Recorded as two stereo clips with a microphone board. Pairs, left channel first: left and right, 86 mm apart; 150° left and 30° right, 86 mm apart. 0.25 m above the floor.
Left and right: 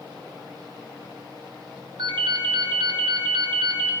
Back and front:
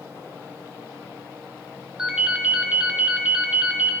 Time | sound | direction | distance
2.0 | a ringtone | 110° right | 2.5 m